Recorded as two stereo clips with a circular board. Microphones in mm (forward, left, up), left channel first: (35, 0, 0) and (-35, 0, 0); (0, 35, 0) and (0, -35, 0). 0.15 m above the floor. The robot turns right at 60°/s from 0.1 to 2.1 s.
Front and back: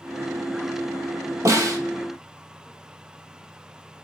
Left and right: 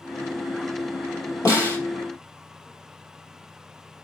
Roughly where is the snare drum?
Behind left.